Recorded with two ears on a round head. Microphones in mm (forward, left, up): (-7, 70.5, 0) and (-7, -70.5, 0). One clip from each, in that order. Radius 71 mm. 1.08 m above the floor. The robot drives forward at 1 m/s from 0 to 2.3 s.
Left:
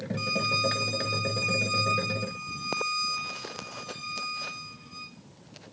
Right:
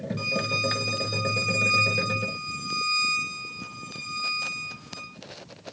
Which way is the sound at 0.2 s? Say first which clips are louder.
Even; 10° left (ahead or behind).